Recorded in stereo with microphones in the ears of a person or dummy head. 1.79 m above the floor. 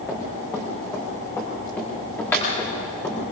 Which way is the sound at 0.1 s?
15° left (ahead or behind).